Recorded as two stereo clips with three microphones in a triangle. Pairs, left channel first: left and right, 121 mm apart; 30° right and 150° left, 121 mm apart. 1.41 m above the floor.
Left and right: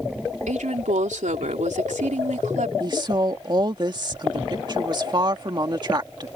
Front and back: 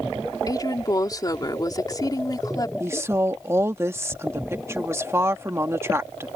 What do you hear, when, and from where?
0.5 s a woman speaking: 90° right
2.8 s a woman speaking: 140° right